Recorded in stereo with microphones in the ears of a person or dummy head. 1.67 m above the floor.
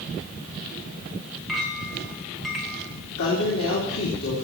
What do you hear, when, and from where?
1.5 s a clink: 5° left (ahead or behind), 1.3 m
3.2 s a woman speaking: 80° left, 3 m